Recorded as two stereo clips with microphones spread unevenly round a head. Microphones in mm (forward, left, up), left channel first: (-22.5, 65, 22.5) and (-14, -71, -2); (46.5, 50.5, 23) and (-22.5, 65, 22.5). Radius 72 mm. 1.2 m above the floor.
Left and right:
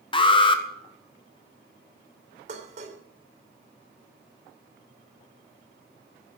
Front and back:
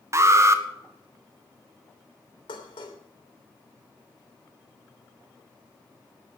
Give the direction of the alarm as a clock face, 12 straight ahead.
7 o'clock.